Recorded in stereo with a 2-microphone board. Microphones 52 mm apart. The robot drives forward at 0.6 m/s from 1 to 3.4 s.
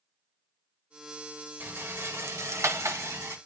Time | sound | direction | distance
1.6 | a rattle | 50° right (ahead or behind) | 1.0 m